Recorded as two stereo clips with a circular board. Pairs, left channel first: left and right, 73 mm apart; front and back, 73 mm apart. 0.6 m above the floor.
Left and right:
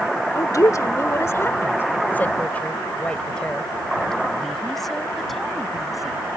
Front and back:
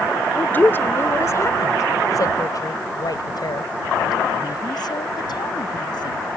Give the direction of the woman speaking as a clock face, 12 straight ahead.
10 o'clock.